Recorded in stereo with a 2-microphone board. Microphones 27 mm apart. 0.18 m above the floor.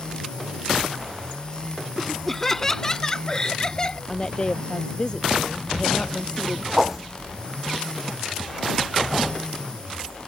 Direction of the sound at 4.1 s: 35° left (ahead or behind).